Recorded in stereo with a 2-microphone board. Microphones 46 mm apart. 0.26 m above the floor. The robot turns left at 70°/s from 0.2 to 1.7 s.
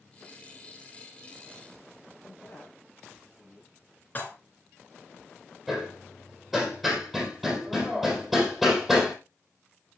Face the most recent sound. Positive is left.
turn(degrees=0)  # may be behind; listen again after turning